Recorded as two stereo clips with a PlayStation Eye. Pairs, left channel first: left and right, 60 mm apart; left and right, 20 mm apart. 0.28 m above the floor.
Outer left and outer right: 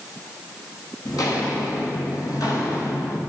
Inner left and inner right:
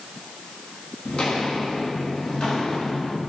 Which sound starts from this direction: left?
Footsteps, at 1.1 s.